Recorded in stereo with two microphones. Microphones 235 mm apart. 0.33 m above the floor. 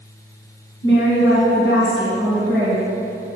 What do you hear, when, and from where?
0.8 s a woman speaking: 60° left (ahead or behind), 2.5 m